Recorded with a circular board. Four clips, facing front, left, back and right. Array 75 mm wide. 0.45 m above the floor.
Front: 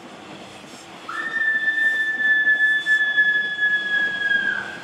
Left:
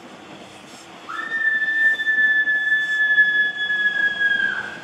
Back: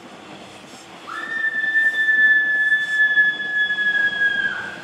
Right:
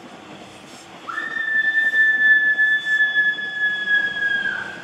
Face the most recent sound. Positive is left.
turn(degrees=115)